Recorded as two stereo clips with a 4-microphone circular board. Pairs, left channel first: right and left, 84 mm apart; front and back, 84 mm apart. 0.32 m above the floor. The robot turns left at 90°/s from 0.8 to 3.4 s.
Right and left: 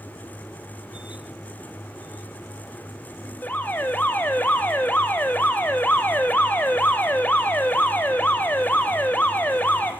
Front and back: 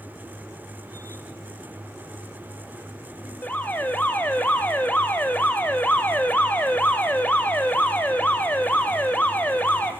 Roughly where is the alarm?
Ahead right.